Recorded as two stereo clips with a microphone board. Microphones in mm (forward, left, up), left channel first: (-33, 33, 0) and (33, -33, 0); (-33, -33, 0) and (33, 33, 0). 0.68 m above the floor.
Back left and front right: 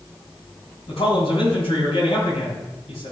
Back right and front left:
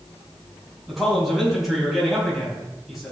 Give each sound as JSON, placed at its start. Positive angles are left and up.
{"t": 0.9, "sound": "a man speaking", "azimuth_deg": 135, "distance_m": 5.5}